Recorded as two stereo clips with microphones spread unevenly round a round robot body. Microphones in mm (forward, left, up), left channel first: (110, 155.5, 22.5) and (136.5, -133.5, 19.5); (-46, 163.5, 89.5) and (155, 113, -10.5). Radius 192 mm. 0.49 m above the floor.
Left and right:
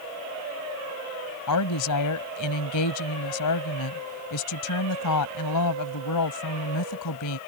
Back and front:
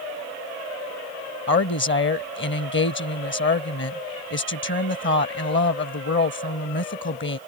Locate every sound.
1.5 s a woman speaking: 130° left